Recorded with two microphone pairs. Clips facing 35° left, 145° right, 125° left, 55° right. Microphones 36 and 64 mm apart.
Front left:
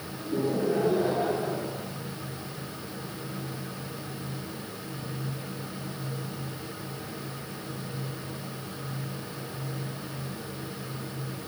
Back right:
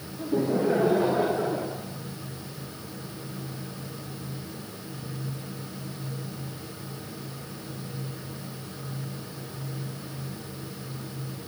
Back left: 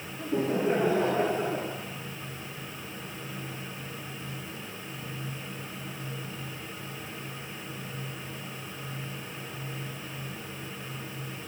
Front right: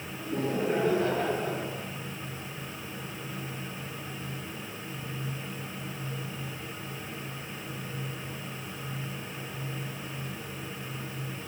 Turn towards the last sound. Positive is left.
turn(degrees=-165)